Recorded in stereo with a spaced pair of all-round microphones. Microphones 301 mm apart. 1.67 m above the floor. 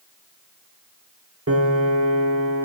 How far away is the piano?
About 1.0 m.